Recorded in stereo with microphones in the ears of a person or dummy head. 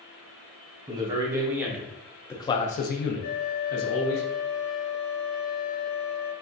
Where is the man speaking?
30° right (ahead or behind), 1.1 m; by 4.2 s 85° left, 1.0 m.